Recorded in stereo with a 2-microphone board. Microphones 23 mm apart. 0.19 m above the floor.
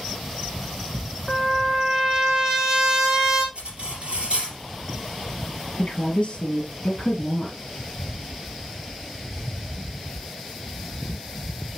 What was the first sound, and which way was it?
A trumpet, 30° right (ahead or behind).